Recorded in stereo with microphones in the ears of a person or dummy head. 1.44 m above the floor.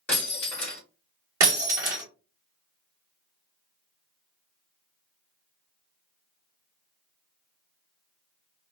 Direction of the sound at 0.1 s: 10° left (ahead or behind).